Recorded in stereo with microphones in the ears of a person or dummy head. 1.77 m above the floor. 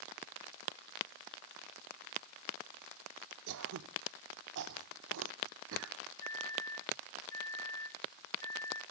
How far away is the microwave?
About 0.8 m.